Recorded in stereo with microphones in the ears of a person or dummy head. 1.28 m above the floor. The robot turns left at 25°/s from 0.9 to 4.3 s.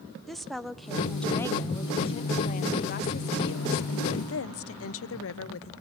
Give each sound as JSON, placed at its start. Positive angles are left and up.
{"t": 0.3, "sound": "a woman speaking", "azimuth_deg": 175, "distance_m": 0.7}